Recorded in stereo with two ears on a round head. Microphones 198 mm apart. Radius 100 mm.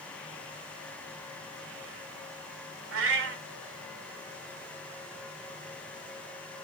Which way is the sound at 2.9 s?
65° right (ahead or behind).